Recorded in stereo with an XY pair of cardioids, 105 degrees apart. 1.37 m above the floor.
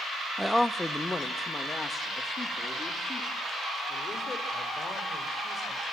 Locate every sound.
0.4 s a man speaking: 5° right, 0.5 m; by 5.8 s 35° left, 6 m